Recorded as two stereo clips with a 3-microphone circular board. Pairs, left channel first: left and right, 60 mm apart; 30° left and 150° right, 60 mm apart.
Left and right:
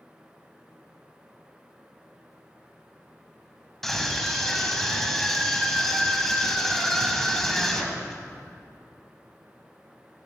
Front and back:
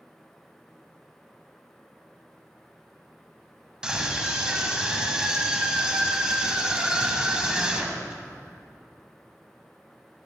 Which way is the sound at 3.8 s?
160° left.